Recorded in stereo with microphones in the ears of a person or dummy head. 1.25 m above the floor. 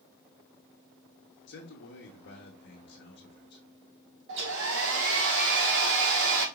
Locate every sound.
1.5 s a man speaking: 55° left (ahead or behind), 1.1 m
4.3 s a hair dryer: 55° right (ahead or behind), 1.2 m